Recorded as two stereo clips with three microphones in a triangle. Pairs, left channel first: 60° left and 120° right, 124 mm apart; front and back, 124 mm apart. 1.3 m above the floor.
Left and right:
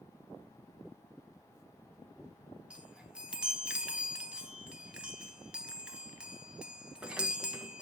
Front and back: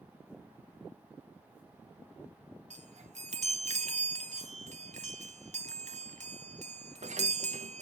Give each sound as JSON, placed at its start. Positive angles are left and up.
{"t": 2.7, "sound": "a chime", "azimuth_deg": 160, "distance_m": 0.7}